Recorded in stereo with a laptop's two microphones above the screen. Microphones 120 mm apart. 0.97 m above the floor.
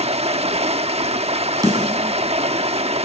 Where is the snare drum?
30° right (ahead or behind), 8 m.